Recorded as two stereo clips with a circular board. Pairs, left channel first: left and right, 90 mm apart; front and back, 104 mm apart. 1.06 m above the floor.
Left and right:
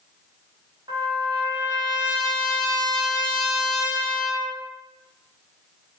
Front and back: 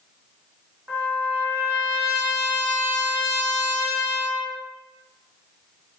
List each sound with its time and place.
0.9 s a trumpet: 110° right, 1.2 m